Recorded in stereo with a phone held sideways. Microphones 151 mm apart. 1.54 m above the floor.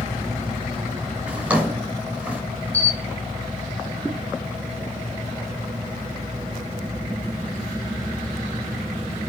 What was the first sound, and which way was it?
A drawer, 10° right (ahead or behind).